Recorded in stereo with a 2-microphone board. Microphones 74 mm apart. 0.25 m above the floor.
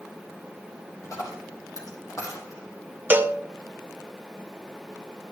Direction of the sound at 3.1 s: 30° right (ahead or behind).